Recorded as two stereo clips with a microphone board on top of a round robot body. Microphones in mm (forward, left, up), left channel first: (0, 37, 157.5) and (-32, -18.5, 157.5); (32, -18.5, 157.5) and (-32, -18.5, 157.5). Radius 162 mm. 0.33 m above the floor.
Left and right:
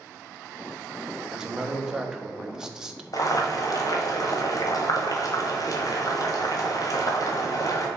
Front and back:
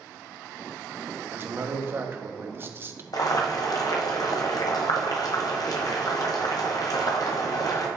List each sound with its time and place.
1.3 s a man speaking: 165° left, 1.2 m
3.1 s boiling: 25° left, 1.3 m